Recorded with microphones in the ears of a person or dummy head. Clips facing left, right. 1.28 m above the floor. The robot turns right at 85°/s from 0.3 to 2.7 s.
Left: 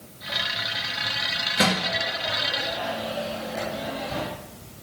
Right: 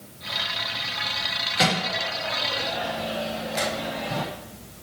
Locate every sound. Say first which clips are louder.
1.6 s a microwave: left 1 dB; 30° left (ahead or behind), 1.4 m; by 4.2 s 60° right (ahead or behind), 1.4 m